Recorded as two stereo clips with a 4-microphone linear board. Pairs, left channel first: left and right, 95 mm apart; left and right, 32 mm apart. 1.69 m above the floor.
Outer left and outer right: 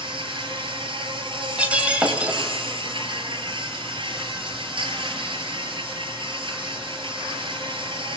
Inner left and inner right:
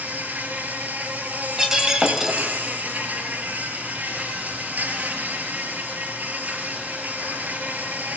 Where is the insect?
60° right (ahead or behind), 4 m.